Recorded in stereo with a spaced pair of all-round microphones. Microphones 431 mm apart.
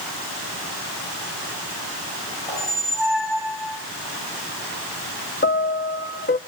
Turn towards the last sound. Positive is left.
turn(degrees=25)  # may be behind; listen again after turning